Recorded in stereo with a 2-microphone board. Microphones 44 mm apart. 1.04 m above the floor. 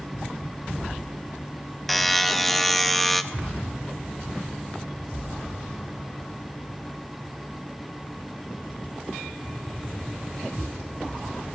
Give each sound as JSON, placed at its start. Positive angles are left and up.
{"t": 1.9, "sound": "a buzzer", "side_deg": 0, "distance_m": 0.5}